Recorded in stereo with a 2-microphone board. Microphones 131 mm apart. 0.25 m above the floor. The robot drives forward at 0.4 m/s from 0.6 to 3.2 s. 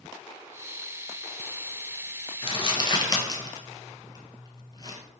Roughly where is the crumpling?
Left.